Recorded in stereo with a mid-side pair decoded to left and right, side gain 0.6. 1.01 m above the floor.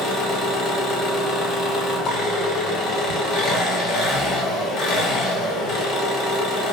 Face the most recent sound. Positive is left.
turn(degrees=50)